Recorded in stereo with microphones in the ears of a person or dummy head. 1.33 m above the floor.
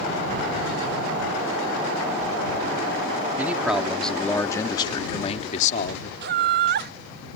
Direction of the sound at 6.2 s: 50° right (ahead or behind).